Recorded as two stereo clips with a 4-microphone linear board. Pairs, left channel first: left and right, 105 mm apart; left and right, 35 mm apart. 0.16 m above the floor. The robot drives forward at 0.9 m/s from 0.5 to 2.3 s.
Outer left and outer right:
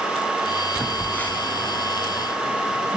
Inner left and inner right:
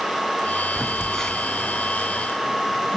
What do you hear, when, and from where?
0.8 s a phone buzzing: 15° left (ahead or behind), 0.9 m; by 3.0 s 10° left (ahead or behind), 1.1 m